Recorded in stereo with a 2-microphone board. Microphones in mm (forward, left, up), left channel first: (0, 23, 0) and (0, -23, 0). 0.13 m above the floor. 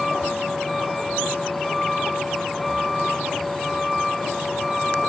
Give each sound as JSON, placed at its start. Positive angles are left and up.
{"t": 0.0, "sound": "a vehicle", "side_deg": 5}